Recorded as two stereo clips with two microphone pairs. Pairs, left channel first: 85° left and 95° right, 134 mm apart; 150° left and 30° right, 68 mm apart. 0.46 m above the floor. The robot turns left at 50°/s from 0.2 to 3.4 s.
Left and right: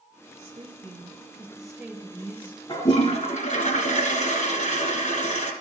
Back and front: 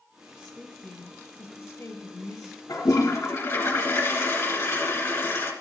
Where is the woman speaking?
120° right, 2.5 m; by 2.6 s 130° left, 2.5 m.